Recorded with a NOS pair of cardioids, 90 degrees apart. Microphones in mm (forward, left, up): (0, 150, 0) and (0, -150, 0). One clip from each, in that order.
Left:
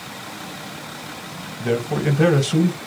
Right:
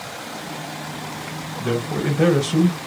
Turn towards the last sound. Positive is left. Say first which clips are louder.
# left 2 dB
turn(degrees=5)